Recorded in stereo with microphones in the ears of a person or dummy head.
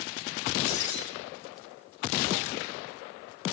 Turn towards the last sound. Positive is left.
turn(degrees=80)